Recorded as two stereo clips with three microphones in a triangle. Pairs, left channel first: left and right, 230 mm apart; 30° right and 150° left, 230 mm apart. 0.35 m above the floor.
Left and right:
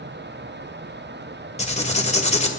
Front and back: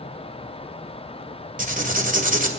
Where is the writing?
130° left, 1.8 m.